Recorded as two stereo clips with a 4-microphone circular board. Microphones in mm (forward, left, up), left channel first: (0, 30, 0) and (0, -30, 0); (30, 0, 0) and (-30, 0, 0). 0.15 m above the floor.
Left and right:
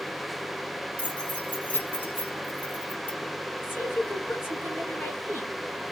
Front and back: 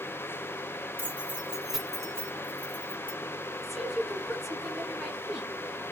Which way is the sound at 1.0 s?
145° left.